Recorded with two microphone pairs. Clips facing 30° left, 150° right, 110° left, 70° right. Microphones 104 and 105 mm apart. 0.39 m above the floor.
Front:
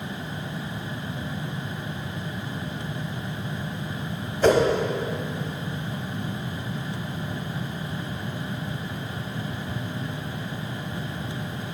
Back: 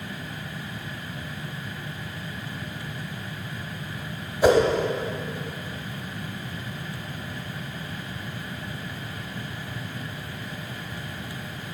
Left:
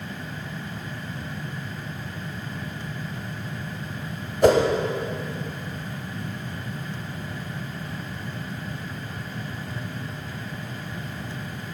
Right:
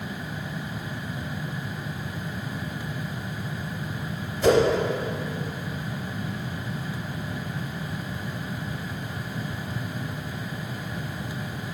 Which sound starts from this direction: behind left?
A whoosh, at 4.4 s.